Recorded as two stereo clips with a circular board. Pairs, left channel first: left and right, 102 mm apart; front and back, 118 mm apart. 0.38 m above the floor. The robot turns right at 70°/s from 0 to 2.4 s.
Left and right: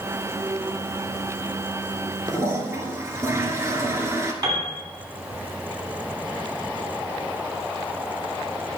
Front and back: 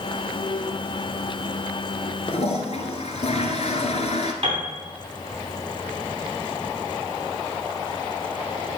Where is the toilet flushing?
35° right, 1.3 m; by 4.3 s 25° right, 1.3 m.